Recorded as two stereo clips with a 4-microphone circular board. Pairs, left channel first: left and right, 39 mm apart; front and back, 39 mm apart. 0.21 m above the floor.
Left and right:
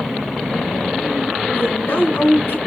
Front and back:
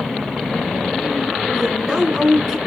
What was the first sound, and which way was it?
A woman speaking, 85° left.